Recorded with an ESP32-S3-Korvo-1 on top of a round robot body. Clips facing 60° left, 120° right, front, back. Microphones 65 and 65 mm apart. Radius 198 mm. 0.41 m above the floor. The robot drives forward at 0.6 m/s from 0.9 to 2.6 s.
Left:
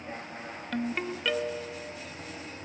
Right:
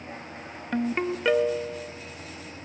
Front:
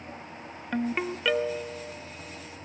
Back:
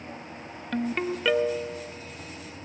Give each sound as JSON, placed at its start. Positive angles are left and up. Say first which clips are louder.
{"t": 0.7, "sound": "a ringtone", "louder": "right 6 dB, back 1 dB", "azimuth_deg": -65, "distance_m": 0.9}